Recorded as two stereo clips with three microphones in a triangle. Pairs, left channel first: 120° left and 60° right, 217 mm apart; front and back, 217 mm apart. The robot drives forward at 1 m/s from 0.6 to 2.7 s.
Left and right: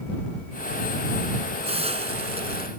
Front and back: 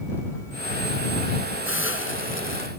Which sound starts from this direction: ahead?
A hiss, at 1.6 s.